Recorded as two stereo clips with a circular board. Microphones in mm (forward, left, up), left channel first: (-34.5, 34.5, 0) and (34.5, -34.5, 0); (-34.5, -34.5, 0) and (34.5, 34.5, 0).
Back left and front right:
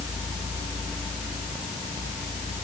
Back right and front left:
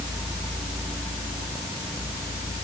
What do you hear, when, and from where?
Only background noise.